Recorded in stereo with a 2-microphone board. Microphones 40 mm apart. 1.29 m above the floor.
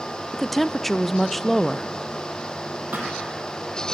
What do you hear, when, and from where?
0.3 s a woman speaking: 5° left (ahead or behind), 0.5 m
2.9 s a thud: 50° right (ahead or behind), 5.5 m